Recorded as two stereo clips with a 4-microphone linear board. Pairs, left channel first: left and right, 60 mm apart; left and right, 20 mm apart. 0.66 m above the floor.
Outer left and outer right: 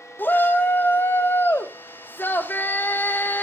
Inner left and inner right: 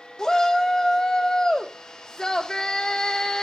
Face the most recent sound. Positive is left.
turn(degrees=35)  # may be behind; listen again after turning